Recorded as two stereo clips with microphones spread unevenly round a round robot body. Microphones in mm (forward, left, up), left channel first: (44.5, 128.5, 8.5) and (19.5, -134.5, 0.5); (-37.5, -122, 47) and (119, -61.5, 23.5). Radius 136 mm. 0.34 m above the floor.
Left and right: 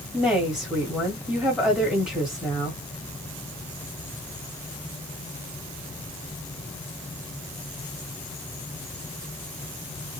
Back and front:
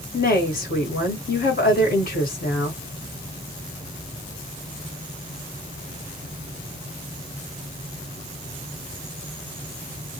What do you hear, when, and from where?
0.1 s a woman speaking: straight behind, 1.3 m